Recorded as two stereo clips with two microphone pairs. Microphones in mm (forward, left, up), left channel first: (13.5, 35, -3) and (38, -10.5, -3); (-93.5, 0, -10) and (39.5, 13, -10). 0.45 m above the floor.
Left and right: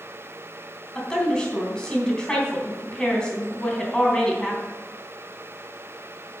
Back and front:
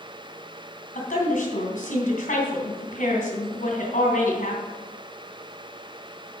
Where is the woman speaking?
170° right, 3 m.